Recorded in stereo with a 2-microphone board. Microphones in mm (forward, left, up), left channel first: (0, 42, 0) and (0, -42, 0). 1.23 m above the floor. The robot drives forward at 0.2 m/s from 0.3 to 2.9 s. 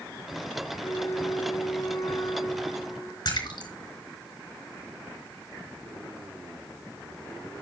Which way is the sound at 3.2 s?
65° left (ahead or behind).